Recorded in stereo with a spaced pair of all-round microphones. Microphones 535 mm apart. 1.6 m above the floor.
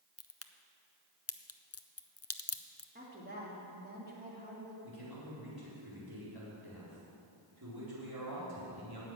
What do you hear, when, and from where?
0.2 s a crack: 30° left (ahead or behind), 0.5 m
3.0 s a woman speaking: 15° right (ahead or behind), 3 m
4.8 s a man speaking: 45° right (ahead or behind), 4 m